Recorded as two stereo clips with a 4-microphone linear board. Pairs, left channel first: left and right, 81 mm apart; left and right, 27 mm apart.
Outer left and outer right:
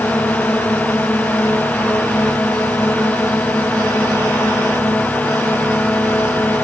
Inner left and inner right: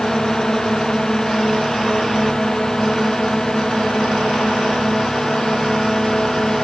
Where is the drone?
20° left (ahead or behind).